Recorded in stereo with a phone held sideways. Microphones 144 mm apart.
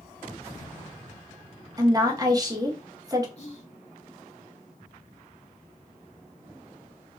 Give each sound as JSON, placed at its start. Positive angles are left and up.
{"t": 1.8, "sound": "a woman speaking", "side_deg": -25, "distance_m": 0.7}
{"t": 3.4, "sound": "whispering", "side_deg": 40, "distance_m": 0.7}